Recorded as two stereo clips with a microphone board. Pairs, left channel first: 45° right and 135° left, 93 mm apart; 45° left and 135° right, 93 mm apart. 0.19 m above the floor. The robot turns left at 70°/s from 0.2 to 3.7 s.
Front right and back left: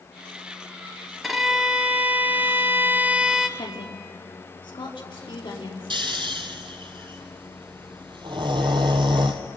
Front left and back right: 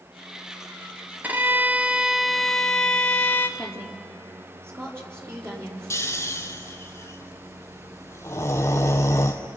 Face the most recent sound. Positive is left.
turn(degrees=105)